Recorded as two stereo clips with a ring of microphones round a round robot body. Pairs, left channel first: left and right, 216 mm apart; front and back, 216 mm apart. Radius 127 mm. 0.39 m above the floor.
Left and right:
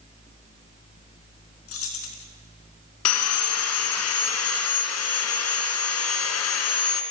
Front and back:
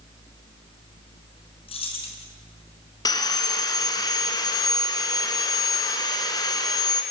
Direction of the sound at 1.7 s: 70° left.